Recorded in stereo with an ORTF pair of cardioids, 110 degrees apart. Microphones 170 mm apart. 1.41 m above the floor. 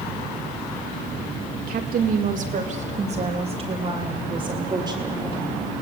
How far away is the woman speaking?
About 2.5 m.